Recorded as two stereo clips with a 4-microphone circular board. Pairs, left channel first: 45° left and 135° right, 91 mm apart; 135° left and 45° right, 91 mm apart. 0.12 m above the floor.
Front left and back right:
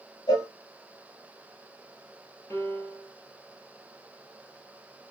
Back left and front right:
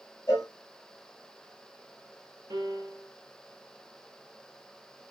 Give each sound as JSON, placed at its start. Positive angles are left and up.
{"t": 0.3, "sound": "a cowbell", "azimuth_deg": 75, "distance_m": 3.5}
{"t": 2.5, "sound": "a piano", "azimuth_deg": -10, "distance_m": 2.0}